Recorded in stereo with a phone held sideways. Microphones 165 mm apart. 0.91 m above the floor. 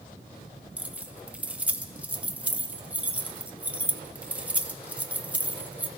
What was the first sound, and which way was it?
Keys jangling, 10° right (ahead or behind).